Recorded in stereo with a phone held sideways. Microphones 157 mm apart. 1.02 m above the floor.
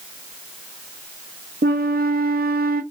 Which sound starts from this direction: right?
A flute, at 1.6 s.